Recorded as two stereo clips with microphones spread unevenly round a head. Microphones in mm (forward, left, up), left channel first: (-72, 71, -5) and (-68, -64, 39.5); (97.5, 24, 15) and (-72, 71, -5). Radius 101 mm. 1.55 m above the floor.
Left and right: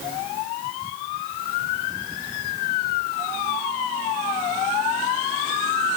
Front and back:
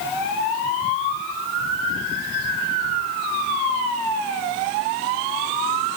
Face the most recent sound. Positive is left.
No sound to turn to.